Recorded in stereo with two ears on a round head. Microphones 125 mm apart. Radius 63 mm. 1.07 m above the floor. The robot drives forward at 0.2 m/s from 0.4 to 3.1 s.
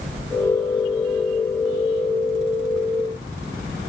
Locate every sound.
Only background noise.